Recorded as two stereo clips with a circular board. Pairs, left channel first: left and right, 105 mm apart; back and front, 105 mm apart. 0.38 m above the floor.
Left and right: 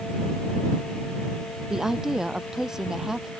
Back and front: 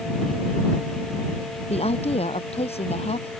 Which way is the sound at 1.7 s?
175° right.